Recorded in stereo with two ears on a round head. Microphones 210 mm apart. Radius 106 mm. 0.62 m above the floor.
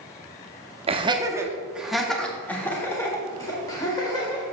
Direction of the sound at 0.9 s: 25° right (ahead or behind).